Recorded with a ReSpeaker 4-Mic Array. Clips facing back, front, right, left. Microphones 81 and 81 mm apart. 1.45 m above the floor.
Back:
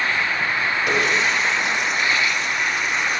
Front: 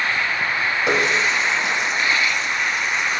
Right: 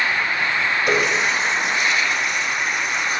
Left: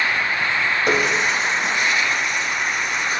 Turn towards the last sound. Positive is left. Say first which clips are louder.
# front 1 dB, even
turn(degrees=60)